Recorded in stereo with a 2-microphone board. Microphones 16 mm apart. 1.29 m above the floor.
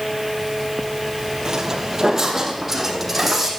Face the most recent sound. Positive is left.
turn(degrees=-5)  # may be behind; listen again after turning